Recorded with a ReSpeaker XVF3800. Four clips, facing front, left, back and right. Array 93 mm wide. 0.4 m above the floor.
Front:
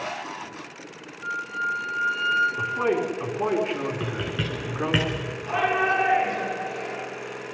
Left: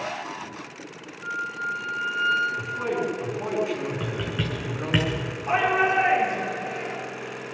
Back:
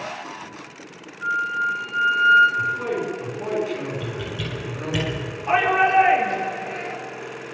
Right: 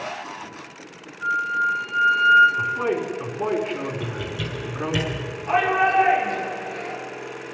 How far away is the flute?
About 6.5 m.